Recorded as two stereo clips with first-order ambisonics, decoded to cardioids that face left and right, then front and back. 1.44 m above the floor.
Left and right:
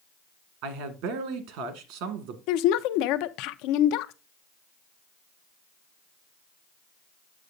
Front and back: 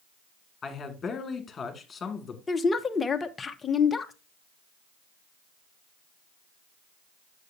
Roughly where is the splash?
No splash in this recording.